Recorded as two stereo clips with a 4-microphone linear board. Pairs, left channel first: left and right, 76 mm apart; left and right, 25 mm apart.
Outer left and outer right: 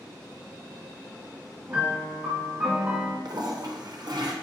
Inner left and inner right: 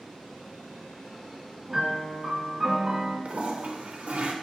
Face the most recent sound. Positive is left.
turn(degrees=-65)  # may be behind; listen again after turning